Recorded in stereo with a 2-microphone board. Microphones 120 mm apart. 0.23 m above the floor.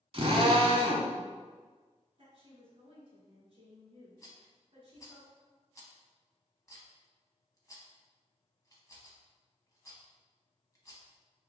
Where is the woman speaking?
55° right (ahead or behind), 1.7 m.